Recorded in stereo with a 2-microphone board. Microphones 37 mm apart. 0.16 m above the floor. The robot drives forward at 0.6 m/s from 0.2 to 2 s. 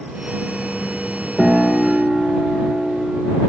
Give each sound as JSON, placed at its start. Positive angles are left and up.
{"t": 1.4, "sound": "a piano", "side_deg": -15, "distance_m": 2.0}